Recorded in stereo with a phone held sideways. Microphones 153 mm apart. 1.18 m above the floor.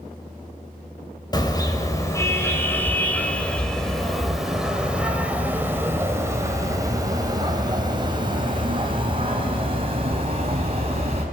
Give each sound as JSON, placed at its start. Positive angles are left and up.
{"t": 1.3, "sound": "a car horn", "side_deg": 25, "distance_m": 3.5}